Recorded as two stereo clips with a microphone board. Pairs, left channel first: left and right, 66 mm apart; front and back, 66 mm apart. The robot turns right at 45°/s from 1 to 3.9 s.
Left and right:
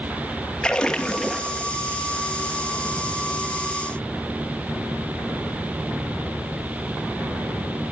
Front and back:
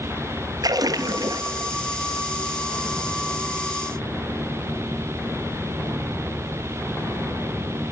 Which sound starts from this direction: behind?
A splash, at 0.6 s.